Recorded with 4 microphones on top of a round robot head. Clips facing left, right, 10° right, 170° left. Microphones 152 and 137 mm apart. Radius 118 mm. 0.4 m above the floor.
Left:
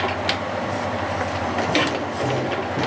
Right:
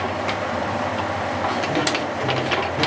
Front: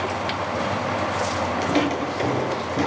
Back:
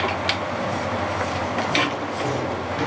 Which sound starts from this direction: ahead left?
Footsteps, at 1.6 s.